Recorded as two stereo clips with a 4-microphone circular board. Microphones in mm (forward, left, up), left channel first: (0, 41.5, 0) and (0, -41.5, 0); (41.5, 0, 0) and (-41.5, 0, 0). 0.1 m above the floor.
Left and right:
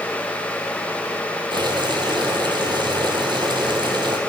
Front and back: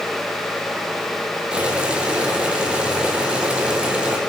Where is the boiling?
105° right, 1.7 m.